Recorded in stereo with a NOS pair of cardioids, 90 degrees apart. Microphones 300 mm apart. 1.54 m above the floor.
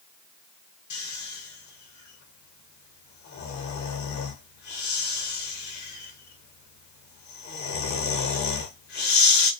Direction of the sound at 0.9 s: 65° left.